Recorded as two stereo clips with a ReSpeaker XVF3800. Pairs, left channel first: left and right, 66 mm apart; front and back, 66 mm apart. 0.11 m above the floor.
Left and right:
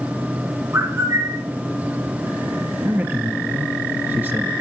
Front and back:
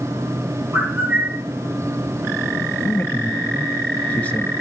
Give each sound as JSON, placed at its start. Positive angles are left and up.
{"t": 0.7, "sound": "a bird", "azimuth_deg": -120, "distance_m": 2.0}
{"t": 2.9, "sound": "a man speaking", "azimuth_deg": -55, "distance_m": 1.5}